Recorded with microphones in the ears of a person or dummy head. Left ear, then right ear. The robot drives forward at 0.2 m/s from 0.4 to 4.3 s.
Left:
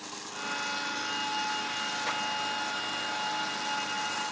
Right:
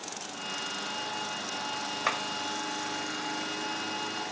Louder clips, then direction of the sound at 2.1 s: Right 5 dB; 45° right (ahead or behind).